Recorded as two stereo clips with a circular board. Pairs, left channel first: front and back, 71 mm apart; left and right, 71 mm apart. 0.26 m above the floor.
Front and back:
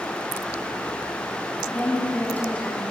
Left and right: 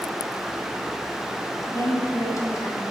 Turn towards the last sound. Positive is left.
turn(degrees=65)